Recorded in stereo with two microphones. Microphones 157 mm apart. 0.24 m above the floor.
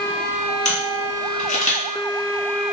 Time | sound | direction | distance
0.7 | a camera shutter | 50° left (ahead or behind) | 1.8 m